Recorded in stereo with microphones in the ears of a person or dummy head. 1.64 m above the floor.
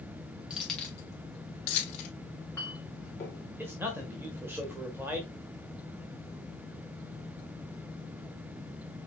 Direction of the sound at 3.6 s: 15° right (ahead or behind).